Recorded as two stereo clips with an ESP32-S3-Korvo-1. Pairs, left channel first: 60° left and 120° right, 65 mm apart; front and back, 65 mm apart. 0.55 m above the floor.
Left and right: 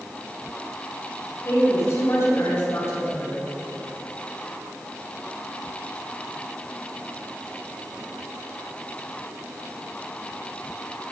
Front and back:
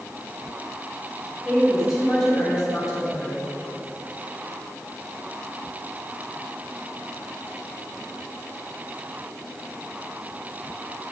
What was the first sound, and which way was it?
A woman speaking, 100° left.